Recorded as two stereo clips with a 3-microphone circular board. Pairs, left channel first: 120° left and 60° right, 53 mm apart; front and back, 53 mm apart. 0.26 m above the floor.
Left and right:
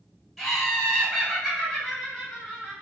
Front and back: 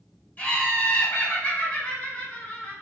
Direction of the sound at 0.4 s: 35° left.